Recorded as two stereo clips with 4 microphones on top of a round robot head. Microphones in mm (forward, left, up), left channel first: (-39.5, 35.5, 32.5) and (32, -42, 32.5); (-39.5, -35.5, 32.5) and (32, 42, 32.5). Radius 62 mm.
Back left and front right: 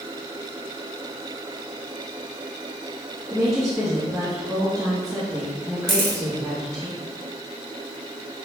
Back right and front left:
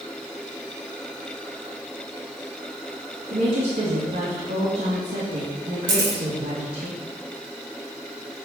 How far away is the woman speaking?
About 2 m.